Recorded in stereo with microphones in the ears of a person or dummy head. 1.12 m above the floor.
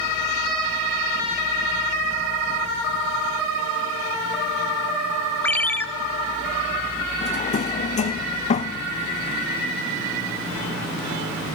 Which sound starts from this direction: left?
A drawer, at 7.2 s.